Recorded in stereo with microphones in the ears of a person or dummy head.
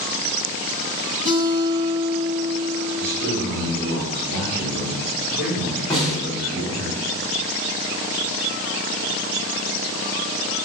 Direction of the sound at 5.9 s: 5° left (ahead or behind).